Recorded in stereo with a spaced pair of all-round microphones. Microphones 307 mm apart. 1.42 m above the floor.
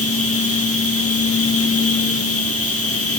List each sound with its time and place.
0.0 s a machine running: 50° left (ahead or behind), 1.2 m